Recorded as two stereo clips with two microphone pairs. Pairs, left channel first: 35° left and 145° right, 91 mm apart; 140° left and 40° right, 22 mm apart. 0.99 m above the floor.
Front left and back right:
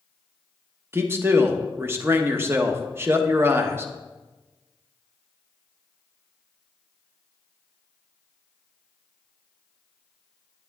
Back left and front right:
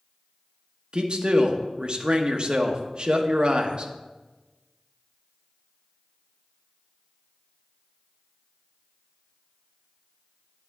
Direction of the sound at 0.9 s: 80° right.